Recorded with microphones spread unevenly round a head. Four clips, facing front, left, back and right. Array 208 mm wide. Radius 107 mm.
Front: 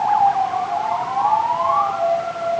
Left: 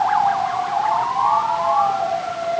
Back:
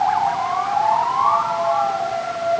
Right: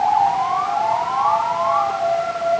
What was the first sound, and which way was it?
Only background noise.